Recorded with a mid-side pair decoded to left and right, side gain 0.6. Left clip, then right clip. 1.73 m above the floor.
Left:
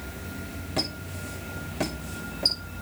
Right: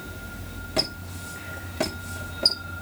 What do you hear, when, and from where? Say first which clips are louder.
0.8 s a squeak: right 3 dB; 15° right, 6 m